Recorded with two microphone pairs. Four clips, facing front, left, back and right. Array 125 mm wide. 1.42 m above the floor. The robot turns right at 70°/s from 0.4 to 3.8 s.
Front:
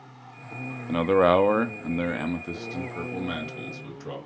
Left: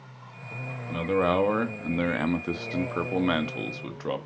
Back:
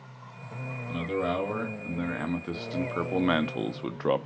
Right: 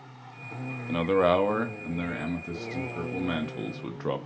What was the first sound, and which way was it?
A man speaking, 20° right.